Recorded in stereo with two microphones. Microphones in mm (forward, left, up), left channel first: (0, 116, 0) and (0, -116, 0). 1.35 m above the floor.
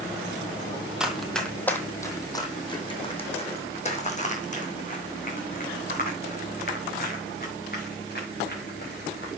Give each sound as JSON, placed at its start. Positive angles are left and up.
{"t": 1.0, "sound": "running footsteps", "side_deg": -5, "distance_m": 2.0}